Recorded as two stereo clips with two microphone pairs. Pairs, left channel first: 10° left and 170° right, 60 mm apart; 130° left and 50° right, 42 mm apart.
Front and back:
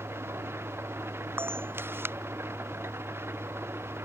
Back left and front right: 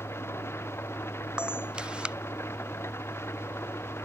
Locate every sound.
0.0 s an engine running: 145° left
1.4 s a camera shutter: 120° right